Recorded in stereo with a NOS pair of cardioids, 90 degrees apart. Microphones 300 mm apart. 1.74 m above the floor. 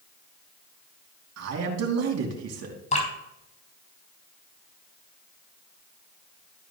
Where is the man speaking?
65° right, 3 m.